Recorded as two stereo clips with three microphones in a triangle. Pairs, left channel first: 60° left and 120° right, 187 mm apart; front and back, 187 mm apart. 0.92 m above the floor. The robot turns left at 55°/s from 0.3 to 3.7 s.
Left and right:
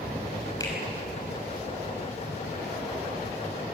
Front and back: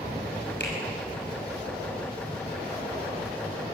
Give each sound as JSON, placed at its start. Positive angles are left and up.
{"t": 0.6, "sound": "a finger snap", "azimuth_deg": -10, "distance_m": 6.0}